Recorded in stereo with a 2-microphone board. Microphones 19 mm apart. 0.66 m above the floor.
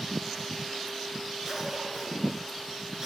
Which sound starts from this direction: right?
A cough, at 1.4 s.